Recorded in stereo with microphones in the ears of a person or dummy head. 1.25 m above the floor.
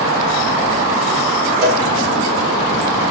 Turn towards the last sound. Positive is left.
turn(degrees=-60)  # may be behind; listen again after turning